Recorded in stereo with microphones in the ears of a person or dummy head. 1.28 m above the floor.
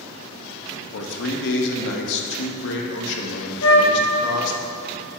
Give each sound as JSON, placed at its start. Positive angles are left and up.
{"t": 0.9, "sound": "a man speaking", "side_deg": 70, "distance_m": 1.0}
{"t": 3.6, "sound": "a flute", "side_deg": 65, "distance_m": 0.9}